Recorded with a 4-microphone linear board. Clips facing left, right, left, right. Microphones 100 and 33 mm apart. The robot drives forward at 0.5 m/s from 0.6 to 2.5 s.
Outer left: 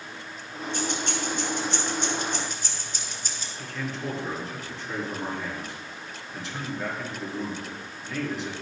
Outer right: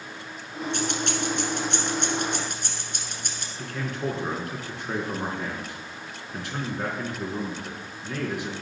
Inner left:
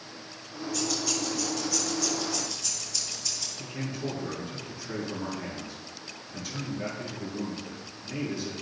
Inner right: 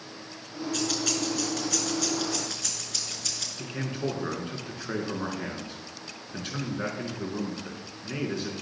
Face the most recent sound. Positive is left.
turn(degrees=-60)  # may be behind; listen again after turning